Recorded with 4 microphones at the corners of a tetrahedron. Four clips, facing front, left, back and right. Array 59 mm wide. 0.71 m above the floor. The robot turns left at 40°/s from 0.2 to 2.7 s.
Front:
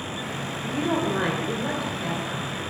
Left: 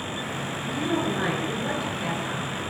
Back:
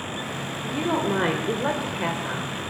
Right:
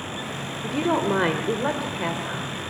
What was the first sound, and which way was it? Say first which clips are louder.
A woman speaking: right 4 dB, back 1 dB; 85° right.